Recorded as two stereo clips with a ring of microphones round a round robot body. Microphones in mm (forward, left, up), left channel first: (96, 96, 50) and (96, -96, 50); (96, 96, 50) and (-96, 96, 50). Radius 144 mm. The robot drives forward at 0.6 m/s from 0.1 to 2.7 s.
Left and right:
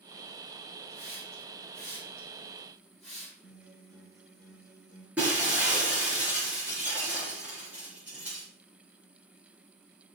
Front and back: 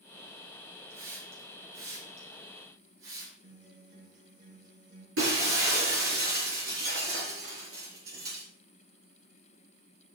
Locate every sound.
0.9 s a hiss: 175° left, 5 m
3.4 s a guitar: 150° left, 4 m
5.2 s breaking glass: 175° right, 6.5 m